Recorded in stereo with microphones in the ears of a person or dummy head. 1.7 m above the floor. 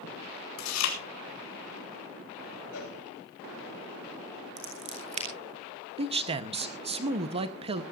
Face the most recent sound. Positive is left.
turn(degrees=-30)  # may be behind; listen again after turning